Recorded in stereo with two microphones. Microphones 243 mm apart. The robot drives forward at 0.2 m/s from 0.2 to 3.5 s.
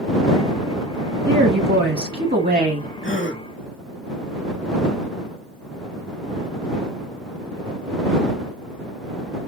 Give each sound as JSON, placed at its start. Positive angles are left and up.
{"t": 1.3, "sound": "a woman speaking", "side_deg": -50, "distance_m": 1.3}
{"t": 3.0, "sound": "a gasp", "side_deg": 55, "distance_m": 1.5}